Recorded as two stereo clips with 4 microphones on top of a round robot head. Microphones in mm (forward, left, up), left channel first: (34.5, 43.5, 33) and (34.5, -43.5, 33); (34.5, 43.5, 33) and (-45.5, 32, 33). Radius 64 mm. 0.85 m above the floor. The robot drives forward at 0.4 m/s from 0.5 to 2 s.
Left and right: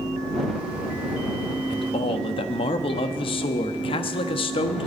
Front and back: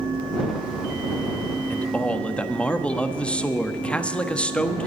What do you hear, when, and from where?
1.7 s a man speaking: 80° left, 1.1 m; by 4.9 s 85° left, 1.1 m